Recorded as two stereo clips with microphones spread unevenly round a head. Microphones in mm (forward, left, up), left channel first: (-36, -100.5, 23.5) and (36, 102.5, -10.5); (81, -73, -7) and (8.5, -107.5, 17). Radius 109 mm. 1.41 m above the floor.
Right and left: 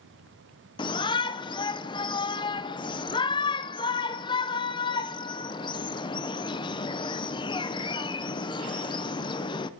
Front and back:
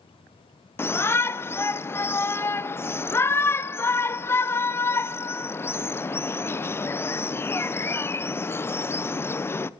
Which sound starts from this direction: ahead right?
A shout, at 0.8 s.